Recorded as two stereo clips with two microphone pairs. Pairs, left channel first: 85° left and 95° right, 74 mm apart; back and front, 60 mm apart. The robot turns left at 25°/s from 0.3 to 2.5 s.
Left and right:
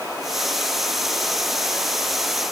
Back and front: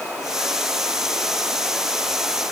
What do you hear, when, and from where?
Only background noise.